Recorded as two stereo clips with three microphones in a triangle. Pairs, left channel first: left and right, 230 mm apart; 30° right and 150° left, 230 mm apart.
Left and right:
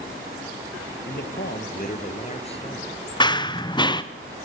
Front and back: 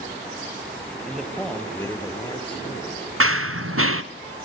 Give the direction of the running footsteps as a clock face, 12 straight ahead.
7 o'clock.